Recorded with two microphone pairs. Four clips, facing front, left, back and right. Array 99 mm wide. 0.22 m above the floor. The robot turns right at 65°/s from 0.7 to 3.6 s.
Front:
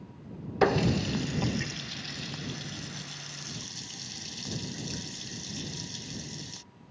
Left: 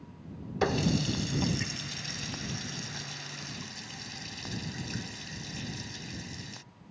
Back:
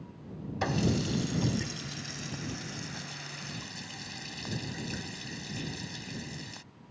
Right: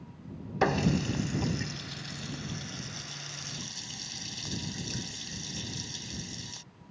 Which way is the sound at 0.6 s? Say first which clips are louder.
Right 1 dB, front 5 dB; 35° right.